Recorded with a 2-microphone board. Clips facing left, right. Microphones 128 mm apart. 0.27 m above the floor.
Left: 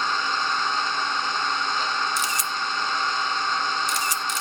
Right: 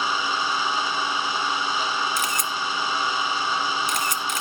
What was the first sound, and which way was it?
An engine running, 10° right (ahead or behind).